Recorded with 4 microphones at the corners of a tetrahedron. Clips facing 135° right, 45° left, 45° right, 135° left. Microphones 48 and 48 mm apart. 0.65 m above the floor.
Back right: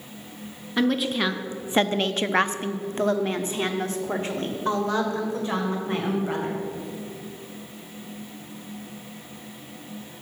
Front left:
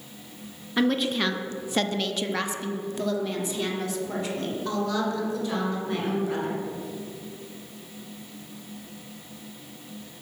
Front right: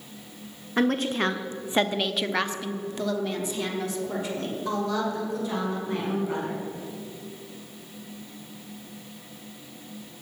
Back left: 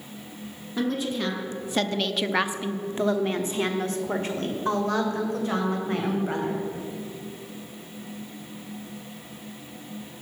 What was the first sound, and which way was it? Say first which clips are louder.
A woman speaking: back right 1 dB, front right 3 dB; 40° right.